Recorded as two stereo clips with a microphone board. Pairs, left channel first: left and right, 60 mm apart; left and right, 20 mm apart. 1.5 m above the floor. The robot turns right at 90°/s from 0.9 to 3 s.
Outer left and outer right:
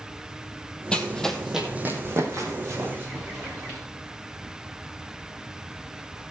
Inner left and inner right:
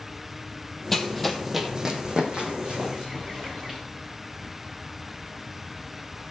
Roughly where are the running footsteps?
Centre.